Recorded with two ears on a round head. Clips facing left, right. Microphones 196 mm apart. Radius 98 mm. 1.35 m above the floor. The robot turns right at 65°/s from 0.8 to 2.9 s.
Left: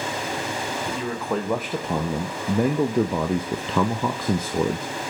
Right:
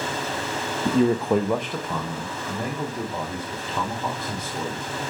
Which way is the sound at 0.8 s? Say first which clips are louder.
Right 11 dB; 45° right.